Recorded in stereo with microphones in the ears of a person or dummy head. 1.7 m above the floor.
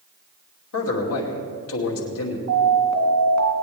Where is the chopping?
No chopping in this recording.